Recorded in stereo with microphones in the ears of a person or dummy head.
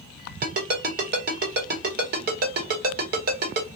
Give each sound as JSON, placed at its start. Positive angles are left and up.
{"t": 0.4, "sound": "a ringtone", "side_deg": -50, "distance_m": 1.1}